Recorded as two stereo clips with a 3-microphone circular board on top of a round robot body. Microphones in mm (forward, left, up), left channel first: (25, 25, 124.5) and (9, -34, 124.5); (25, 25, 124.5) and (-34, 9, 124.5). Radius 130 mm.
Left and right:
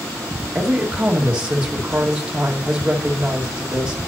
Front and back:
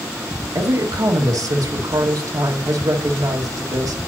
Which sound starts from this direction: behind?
A woman speaking, at 0.6 s.